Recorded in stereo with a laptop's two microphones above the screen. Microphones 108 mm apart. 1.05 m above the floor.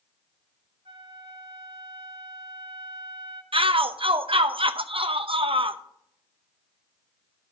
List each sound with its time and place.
0.8 s a flute: 55° right (ahead or behind), 1.8 m
3.5 s a shout: 55° right (ahead or behind), 0.7 m